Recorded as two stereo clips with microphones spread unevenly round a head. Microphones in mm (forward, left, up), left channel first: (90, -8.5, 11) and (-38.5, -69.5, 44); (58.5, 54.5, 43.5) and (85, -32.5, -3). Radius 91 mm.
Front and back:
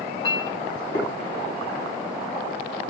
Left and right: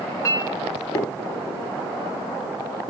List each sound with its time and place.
0.2 s a clink: 100° left, 1.2 m